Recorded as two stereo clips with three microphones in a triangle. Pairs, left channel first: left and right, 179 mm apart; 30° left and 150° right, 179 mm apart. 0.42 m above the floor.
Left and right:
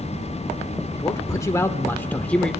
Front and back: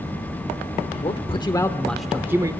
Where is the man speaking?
30° left, 1.1 m; by 2.5 s 170° left, 0.9 m.